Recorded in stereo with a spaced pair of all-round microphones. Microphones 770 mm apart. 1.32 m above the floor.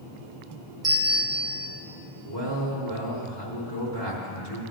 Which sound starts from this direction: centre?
A bell, at 0.8 s.